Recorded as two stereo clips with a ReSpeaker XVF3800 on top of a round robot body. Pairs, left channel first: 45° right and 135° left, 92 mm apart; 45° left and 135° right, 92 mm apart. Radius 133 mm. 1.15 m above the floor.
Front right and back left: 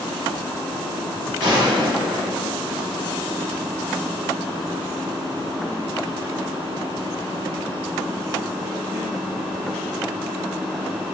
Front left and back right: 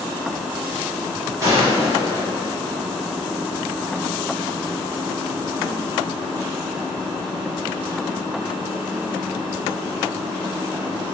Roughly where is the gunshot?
Behind.